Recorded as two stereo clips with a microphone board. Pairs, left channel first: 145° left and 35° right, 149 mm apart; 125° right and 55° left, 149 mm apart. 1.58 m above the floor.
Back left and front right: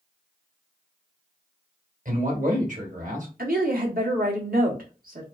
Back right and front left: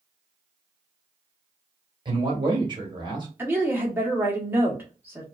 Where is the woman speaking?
20° right, 1.5 m.